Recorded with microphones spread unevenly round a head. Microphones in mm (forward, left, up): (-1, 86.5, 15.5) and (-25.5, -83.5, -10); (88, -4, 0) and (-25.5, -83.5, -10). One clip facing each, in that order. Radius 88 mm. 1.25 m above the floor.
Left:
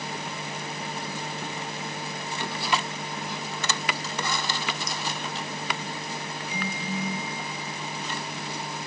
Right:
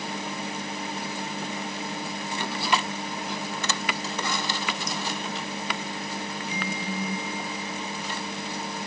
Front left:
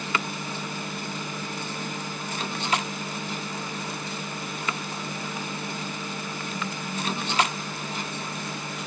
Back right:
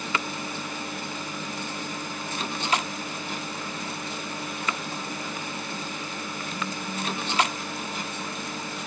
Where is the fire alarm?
No fire alarm in this recording.